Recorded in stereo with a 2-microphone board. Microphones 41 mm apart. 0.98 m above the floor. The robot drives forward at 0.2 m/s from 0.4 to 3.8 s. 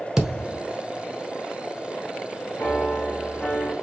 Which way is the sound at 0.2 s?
10° right (ahead or behind).